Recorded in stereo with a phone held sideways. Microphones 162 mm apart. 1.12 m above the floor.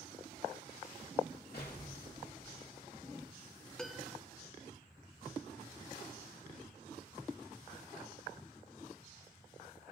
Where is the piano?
5° left (ahead or behind), 0.5 m.